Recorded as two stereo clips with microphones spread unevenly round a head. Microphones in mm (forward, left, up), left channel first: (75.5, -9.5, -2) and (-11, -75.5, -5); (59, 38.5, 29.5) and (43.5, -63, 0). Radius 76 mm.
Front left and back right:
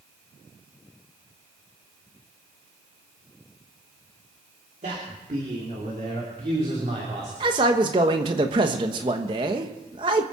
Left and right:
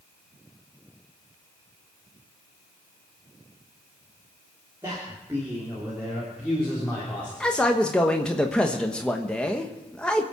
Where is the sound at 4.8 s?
165° right, 3 m; by 7.3 s 165° left, 3.5 m.